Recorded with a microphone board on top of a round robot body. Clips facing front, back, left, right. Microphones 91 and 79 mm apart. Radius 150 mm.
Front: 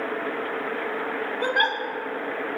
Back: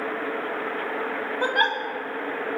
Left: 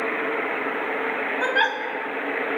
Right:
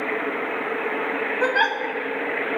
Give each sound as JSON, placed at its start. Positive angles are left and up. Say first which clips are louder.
{"t": 1.4, "sound": "a giggle", "louder": "back 1 dB, right 1 dB", "azimuth_deg": -170, "distance_m": 2.5}